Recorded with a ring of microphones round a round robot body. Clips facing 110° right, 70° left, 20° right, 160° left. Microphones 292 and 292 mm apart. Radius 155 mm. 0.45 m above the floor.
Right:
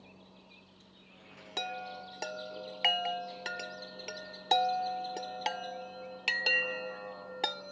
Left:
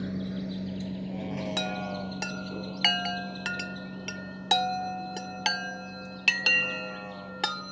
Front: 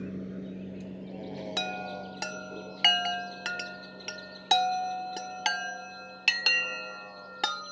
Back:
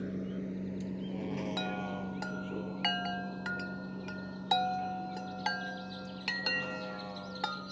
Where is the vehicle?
65° left; by 7.7 s 110° left.